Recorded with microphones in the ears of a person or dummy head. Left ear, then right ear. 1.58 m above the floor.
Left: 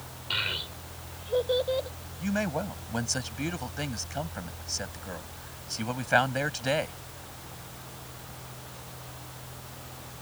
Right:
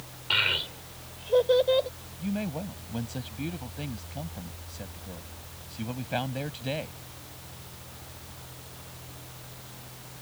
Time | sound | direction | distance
0.3 | a child speaking | 30° right (ahead or behind) | ?
2.2 | a man speaking | 55° left (ahead or behind) | ?